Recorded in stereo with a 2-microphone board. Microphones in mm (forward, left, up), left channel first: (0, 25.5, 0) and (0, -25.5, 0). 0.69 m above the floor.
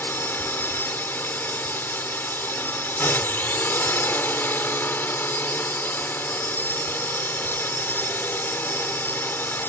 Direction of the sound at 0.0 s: 40° left (ahead or behind).